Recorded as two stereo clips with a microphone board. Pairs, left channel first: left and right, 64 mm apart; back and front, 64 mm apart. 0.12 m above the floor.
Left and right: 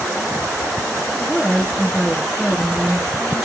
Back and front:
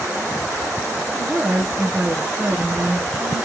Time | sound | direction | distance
1.1 | a woman speaking | 35° left | 1.4 m